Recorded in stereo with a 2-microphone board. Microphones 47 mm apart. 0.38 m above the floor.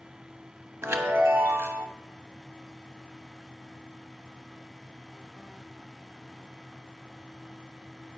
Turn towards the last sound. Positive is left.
turn(degrees=-75)  # may be behind; listen again after turning